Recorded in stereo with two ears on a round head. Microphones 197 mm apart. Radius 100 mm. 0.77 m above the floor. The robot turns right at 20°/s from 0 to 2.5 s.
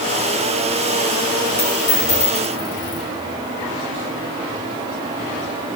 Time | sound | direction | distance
1.6 | a dropped coin | 40° left (ahead or behind) | 4.5 m